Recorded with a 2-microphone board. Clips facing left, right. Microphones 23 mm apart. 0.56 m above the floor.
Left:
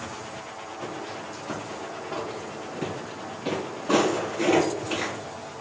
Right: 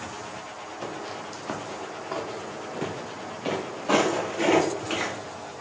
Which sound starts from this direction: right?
Footsteps, at 0.8 s.